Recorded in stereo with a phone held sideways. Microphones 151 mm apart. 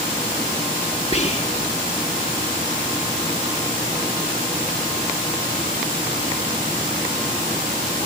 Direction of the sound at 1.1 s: 45° left (ahead or behind).